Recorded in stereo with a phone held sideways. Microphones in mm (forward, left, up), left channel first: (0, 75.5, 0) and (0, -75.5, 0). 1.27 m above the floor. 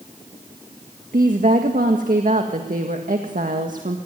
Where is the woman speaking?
65° right (ahead or behind), 1.8 m.